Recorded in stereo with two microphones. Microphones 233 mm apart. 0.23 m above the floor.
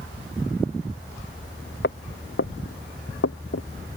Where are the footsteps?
50° left (ahead or behind); by 3.7 s 65° left (ahead or behind).